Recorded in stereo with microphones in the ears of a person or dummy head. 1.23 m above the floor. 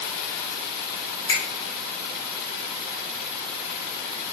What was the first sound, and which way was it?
A finger snap, 35° left (ahead or behind).